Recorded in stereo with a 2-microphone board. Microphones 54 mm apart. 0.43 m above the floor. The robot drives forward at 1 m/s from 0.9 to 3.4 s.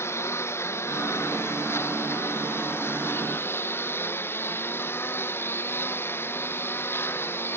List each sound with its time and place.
0.0 s a lawn mower: 45° left (ahead or behind); by 7.6 s 40° left (ahead or behind)